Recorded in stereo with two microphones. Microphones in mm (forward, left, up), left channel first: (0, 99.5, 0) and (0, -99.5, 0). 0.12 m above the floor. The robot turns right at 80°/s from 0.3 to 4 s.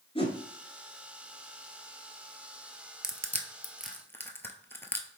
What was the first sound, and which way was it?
A whoosh, 30° left (ahead or behind).